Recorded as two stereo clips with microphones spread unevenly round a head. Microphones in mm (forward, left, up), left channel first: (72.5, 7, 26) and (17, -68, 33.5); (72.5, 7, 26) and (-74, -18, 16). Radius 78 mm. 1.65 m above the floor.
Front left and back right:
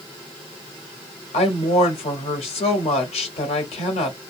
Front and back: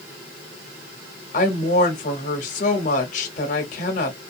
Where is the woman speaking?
55° left, 0.7 m.